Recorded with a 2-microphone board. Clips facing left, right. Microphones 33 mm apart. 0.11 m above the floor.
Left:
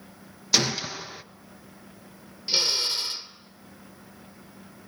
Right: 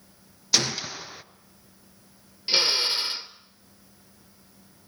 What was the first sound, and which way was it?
A gunshot, centre (ahead or behind).